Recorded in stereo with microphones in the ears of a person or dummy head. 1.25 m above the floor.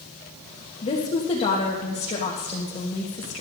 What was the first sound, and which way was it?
A woman speaking, 30° left (ahead or behind).